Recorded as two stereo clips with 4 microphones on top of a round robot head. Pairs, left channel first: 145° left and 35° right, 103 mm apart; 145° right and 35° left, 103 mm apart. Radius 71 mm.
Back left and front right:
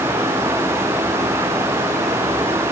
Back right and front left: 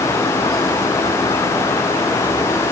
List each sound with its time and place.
Only background noise.